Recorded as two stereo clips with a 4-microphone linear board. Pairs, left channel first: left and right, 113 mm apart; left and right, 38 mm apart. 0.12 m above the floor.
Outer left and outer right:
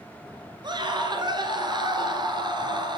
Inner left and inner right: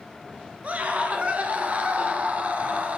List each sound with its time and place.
0.6 s a scream: 45° right (ahead or behind), 2 m